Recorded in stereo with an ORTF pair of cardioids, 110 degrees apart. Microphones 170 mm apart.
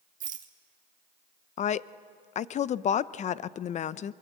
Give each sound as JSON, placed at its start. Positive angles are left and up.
{"t": 0.2, "sound": "a rattle", "azimuth_deg": -50, "distance_m": 1.8}
{"t": 1.6, "sound": "a woman speaking", "azimuth_deg": 45, "distance_m": 0.5}